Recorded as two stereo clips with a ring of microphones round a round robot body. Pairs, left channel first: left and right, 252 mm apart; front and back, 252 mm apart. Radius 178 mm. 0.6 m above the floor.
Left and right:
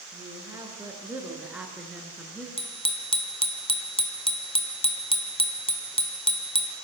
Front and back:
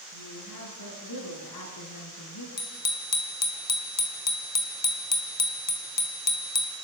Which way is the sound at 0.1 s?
10° right.